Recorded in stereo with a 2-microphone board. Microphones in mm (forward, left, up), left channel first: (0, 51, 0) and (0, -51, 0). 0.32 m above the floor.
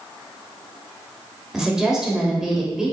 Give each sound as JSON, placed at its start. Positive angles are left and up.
{"t": 1.5, "sound": "a woman speaking", "side_deg": -5, "distance_m": 1.1}